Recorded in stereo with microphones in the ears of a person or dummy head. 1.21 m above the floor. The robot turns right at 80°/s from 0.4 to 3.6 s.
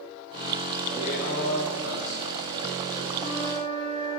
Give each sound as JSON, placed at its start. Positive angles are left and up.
{"t": 0.9, "sound": "a man speaking", "side_deg": 30, "distance_m": 2.0}
{"t": 3.2, "sound": "a flute", "azimuth_deg": 55, "distance_m": 1.9}